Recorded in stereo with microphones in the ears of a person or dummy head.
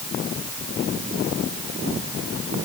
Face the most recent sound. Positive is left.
No sound to turn to.